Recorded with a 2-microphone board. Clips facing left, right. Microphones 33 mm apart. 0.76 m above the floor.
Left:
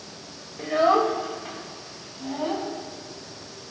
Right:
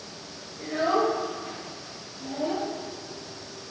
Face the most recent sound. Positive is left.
turn(degrees=35)  # may be behind; listen again after turning